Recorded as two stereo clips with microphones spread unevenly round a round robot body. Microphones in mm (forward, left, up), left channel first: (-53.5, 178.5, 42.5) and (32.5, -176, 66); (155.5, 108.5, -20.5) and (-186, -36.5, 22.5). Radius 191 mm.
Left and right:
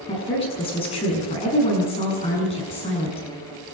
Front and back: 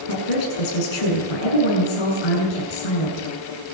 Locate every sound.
0.1 s a woman speaking: 30° left, 6.5 m